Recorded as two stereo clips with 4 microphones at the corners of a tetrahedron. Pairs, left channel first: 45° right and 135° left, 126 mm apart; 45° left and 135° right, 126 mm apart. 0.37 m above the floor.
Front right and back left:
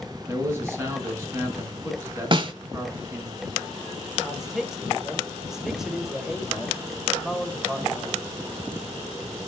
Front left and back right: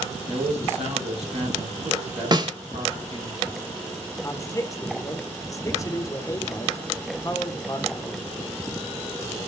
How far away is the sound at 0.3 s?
About 4.5 m.